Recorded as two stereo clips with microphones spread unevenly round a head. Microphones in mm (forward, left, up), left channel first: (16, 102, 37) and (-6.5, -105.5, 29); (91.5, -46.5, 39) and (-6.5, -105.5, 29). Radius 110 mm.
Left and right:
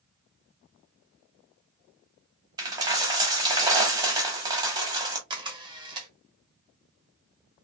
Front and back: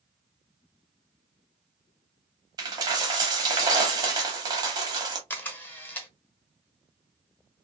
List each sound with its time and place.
2.6 s a dropped coin: 155° right, 0.8 m
5.3 s a camera shutter: 30° right, 0.9 m